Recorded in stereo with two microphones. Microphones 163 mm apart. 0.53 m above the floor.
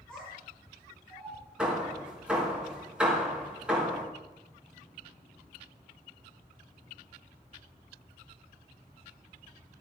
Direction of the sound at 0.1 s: 5° left (ahead or behind).